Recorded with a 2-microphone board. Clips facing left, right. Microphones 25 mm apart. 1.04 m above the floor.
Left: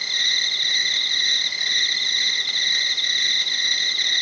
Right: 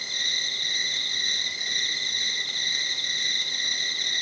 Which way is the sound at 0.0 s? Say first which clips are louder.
Left 6 dB; 35° left (ahead or behind).